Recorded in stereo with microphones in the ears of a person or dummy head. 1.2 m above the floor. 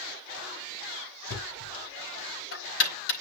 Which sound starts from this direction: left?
Knocking, at 1.3 s.